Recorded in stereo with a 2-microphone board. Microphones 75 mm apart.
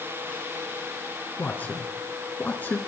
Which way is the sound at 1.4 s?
20° left (ahead or behind).